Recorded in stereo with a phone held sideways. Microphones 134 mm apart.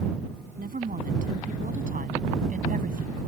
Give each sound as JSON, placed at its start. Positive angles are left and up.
{"t": 0.6, "sound": "a woman speaking", "side_deg": -80}